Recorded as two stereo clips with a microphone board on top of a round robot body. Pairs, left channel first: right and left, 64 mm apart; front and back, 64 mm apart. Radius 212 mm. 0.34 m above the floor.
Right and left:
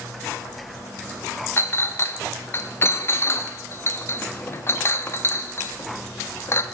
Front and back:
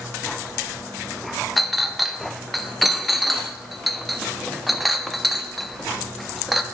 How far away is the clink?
About 0.6 m.